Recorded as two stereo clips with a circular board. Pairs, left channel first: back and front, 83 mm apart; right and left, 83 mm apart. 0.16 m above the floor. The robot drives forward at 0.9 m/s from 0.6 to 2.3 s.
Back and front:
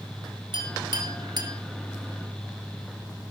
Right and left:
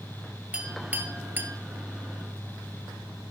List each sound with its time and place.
0.5 s a clink: 15° left, 2 m; by 1.6 s 30° left, 1.4 m